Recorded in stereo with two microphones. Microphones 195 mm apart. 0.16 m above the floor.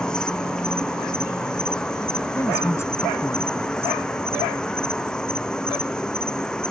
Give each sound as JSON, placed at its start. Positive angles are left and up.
{"t": 0.0, "sound": "an insect", "side_deg": 5}
{"t": 2.4, "sound": "a woman speaking", "side_deg": 15}